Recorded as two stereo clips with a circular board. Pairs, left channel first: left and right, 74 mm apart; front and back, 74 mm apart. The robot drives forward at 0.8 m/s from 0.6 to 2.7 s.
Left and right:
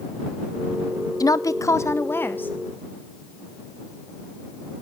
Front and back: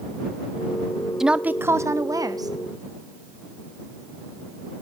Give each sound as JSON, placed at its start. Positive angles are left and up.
{"t": 1.2, "sound": "a woman speaking", "azimuth_deg": 100, "distance_m": 0.7}